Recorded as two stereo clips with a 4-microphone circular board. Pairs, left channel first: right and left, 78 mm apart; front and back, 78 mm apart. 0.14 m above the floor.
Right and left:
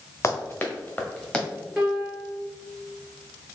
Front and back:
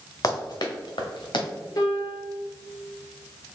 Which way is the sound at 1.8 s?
10° left.